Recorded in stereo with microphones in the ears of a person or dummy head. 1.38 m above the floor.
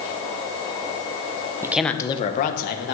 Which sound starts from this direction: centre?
A man speaking, at 1.6 s.